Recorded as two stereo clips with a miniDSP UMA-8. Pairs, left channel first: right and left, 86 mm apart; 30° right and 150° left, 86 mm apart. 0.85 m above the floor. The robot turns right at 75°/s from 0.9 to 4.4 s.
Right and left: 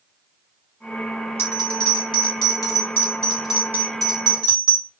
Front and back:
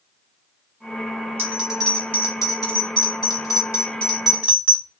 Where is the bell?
155° right, 1.2 m; by 4.9 s 75° left, 1.2 m.